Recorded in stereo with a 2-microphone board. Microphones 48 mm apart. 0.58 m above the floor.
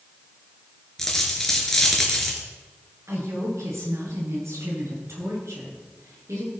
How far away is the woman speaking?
About 9 m.